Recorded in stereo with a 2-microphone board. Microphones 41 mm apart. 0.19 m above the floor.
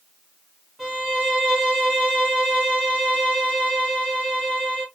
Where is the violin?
Centre (ahead or behind), 1.7 m.